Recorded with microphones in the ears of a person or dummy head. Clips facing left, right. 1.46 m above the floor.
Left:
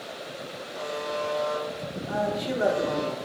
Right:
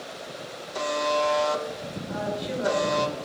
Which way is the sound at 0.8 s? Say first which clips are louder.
Right 6 dB; 70° right (ahead or behind).